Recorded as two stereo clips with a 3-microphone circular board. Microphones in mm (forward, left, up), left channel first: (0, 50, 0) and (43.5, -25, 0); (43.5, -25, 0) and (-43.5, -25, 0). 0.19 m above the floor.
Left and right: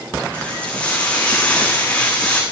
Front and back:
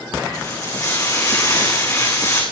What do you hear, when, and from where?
0.3 s frying: 45° left, 6.5 m